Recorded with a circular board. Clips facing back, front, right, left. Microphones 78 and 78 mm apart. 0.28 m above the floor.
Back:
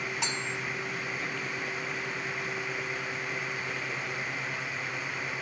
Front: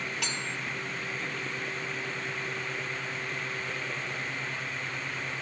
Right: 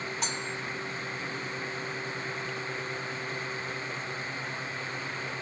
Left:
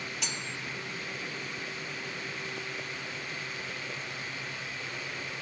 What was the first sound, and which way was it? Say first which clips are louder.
Cutlery clinking: back 1 dB, right 4 dB; 120° right.